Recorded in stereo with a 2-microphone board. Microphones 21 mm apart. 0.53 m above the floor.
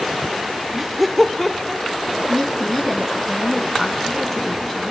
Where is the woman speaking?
20° left (ahead or behind), 4.5 m.